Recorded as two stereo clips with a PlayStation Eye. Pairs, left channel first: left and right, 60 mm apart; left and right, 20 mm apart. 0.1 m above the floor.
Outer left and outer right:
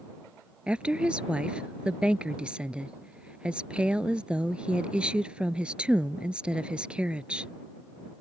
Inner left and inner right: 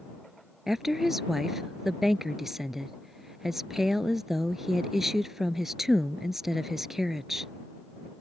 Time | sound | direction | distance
0.7 | a woman speaking | 20° right (ahead or behind) | ?